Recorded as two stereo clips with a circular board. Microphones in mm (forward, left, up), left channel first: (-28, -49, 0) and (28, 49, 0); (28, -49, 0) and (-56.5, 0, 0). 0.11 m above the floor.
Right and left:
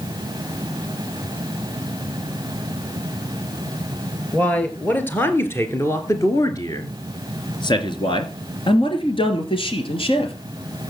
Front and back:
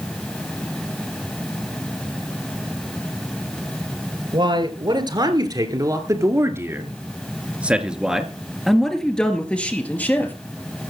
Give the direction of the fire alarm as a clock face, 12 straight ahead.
No fire alarm in this recording.